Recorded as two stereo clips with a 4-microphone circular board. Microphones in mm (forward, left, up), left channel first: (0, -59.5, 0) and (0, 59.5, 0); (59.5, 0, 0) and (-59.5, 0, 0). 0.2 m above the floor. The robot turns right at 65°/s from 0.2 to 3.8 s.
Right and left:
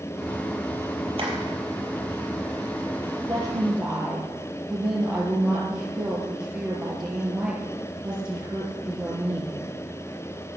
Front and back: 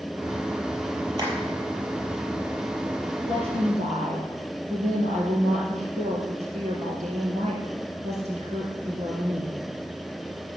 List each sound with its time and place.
1.2 s tapping: 120° left, 4.5 m; by 1.3 s 130° left, 4.5 m
3.2 s a woman speaking: 135° left, 4 m; by 9.6 s 170° left, 4 m